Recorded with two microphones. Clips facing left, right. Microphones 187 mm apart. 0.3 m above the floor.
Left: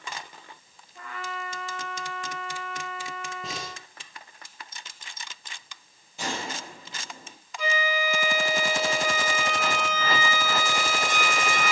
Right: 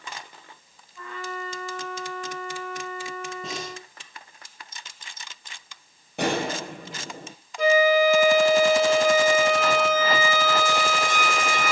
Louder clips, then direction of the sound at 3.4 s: Right 3 dB; centre (ahead or behind).